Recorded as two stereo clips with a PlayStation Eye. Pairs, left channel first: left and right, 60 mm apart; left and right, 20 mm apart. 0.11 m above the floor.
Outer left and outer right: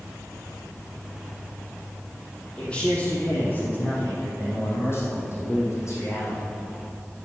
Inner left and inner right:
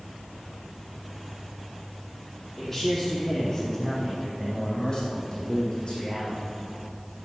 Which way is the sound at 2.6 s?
20° left (ahead or behind).